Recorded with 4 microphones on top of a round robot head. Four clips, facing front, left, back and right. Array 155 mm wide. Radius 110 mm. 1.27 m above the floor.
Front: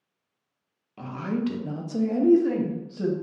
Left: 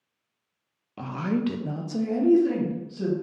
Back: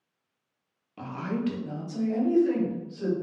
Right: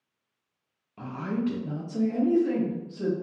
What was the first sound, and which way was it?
A woman speaking, 100° left.